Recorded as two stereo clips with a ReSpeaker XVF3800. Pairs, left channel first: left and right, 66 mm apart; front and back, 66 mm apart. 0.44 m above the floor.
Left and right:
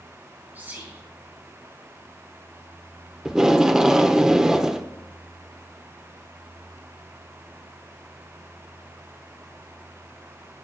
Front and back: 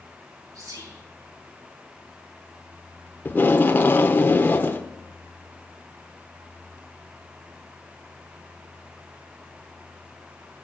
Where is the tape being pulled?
15° right, 0.8 m.